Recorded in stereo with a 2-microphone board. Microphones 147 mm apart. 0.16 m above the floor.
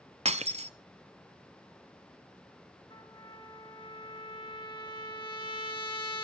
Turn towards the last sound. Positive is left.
turn(degrees=35)  # may be behind; listen again after turning